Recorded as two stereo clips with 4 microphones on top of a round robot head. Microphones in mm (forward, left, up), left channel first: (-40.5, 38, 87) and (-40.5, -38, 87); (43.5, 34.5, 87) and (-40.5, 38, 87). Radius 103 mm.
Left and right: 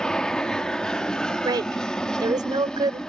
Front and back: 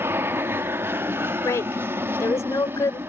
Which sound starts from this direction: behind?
An aircraft, at 0.0 s.